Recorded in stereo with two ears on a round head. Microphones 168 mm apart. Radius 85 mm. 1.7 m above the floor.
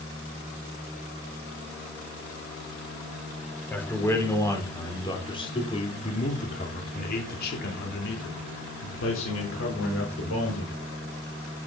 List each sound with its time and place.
3.7 s a man speaking: 10° left (ahead or behind), 4.5 m; by 10.8 s 80° left, 5.5 m